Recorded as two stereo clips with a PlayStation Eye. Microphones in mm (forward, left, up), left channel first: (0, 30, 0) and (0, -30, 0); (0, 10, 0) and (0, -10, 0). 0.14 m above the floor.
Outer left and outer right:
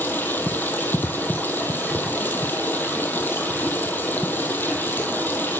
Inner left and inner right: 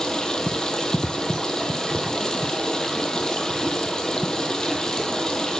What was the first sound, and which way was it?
Running water, 35° left (ahead or behind).